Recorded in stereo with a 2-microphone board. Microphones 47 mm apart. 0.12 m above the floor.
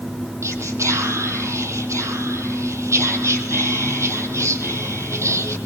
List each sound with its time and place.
0.4 s whispering: 70° right (ahead or behind), 4.5 m